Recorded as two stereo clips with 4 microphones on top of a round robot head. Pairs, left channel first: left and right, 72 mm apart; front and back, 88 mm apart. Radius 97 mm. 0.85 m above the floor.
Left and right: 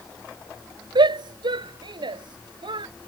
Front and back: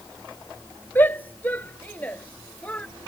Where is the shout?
70° right; by 2.9 s 80° right.